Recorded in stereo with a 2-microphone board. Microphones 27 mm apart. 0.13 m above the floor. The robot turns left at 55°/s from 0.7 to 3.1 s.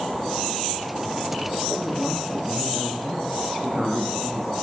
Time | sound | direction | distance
1.8 | a woman speaking | 80° left | 6.5 m